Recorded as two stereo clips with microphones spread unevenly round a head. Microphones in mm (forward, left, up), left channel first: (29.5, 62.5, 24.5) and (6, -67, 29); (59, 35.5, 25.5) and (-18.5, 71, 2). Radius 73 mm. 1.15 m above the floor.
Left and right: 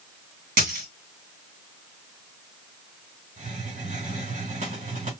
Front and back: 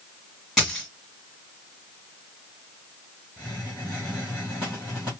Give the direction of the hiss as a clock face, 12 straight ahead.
4 o'clock.